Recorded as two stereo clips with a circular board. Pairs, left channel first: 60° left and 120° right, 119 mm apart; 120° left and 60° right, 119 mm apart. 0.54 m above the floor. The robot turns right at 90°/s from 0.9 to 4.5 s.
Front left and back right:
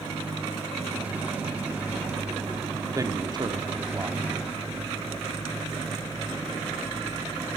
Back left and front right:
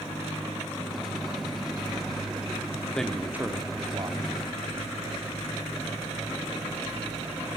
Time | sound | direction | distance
3.0 | a man speaking | 160° right | 1.5 m